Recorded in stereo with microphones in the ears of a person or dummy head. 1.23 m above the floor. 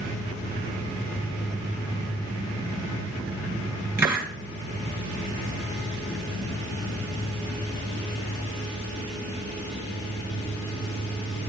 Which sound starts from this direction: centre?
A hiss, at 4.0 s.